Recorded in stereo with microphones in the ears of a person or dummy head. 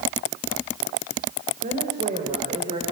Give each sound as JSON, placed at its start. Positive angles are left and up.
{"t": 1.6, "sound": "a woman speaking", "side_deg": -35, "distance_m": 5.5}